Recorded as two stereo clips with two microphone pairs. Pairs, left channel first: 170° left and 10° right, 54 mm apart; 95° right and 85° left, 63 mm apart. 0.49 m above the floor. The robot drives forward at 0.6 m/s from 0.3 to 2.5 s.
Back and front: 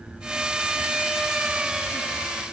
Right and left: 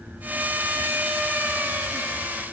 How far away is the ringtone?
I don't hear a ringtone.